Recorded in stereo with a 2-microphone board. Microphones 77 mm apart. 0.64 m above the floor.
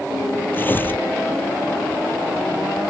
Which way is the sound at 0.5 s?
25° left (ahead or behind).